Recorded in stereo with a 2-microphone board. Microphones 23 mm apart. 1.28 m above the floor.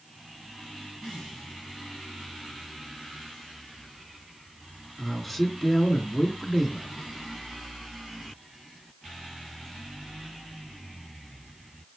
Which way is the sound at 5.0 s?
5° left (ahead or behind).